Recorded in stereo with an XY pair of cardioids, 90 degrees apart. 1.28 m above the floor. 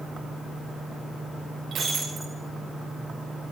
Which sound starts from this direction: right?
Breaking glass, at 1.7 s.